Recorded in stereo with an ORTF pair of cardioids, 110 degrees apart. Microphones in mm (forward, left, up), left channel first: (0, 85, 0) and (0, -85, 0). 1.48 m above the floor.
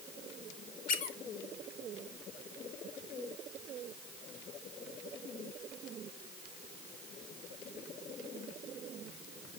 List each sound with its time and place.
0.9 s a squeak: 60° left, 3 m